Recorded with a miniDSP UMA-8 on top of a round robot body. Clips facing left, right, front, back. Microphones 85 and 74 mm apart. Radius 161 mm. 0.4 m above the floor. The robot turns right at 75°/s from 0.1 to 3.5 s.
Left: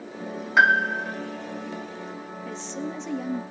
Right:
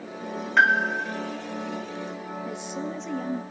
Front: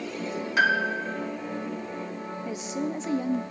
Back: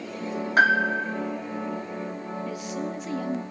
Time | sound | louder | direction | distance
0.6 | a piano | left 1 dB, back 3 dB | 165° left | 1.5 m
2.5 | a woman speaking | left 1 dB, front 3 dB | 45° right | 0.8 m